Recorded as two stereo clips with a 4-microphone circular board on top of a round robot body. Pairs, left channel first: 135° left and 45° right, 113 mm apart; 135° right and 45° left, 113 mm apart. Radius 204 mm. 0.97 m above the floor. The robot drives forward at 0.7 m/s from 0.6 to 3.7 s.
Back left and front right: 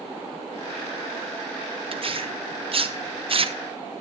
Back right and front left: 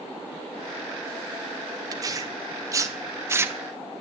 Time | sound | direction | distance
1.9 | tearing paper | 10° right | 2.5 m